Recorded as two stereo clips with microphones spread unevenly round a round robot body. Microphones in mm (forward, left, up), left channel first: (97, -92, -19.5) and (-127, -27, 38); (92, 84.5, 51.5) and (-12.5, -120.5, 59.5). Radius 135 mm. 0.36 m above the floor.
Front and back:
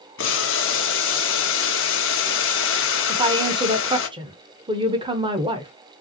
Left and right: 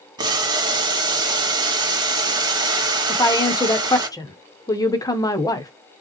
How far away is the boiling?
About 1.6 m.